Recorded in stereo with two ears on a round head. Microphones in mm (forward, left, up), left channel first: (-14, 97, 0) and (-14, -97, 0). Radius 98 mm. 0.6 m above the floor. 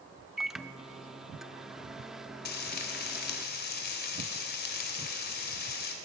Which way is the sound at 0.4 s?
Centre (ahead or behind).